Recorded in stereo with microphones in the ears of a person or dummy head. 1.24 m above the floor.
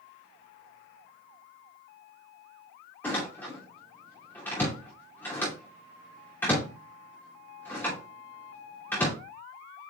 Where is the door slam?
10° left (ahead or behind), 2.5 m.